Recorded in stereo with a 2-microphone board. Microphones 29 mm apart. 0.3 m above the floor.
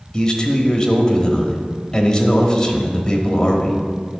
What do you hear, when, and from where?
0.1 s a man speaking: 25° left (ahead or behind), 1.1 m